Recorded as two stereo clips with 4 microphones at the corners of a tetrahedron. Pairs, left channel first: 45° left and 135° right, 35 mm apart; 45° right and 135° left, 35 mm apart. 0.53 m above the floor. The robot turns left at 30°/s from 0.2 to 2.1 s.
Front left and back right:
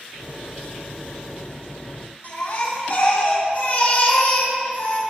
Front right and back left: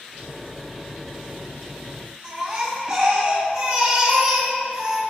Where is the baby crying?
85° left, 3 m.